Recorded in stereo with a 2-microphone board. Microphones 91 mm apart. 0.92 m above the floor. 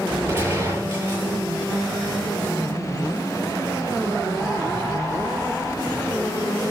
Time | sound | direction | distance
0.3 | a gunshot | 25° right (ahead or behind) | 9 m